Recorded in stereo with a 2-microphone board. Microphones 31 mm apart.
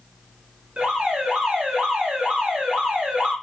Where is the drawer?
No drawer in this recording.